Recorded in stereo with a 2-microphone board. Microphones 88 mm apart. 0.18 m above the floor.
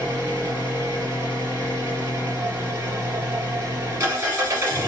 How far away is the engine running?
About 2 m.